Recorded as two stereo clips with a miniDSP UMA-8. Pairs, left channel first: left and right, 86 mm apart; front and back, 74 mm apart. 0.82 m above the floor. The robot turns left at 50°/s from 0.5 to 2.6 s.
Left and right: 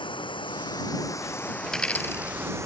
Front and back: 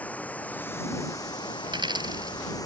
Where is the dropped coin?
175° left; by 2.4 s 140° left.